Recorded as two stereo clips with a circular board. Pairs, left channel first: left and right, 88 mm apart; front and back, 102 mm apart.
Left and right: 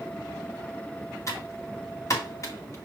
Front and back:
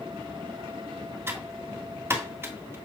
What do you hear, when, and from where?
1.3 s typing on a keyboard: 125° left, 1.5 m